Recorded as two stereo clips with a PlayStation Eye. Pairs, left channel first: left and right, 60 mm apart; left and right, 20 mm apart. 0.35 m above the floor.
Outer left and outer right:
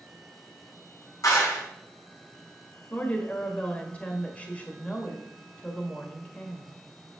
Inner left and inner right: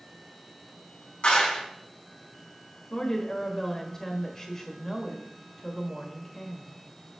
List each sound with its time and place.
1.2 s a clap: 70° left (ahead or behind), 3 m
2.9 s a woman speaking: 25° left (ahead or behind), 1.3 m